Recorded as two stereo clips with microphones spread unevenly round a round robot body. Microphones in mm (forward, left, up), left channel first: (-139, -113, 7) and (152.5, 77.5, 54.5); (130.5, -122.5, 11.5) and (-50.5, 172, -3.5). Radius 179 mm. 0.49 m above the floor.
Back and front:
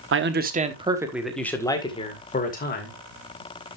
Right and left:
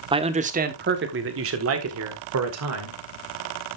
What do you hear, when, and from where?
0.1 s a man speaking: 65° left, 1.4 m; by 3.8 s 165° left, 3 m